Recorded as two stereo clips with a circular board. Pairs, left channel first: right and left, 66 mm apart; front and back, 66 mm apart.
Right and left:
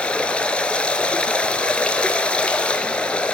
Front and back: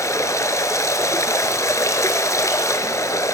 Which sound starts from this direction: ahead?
Running water, at 0.0 s.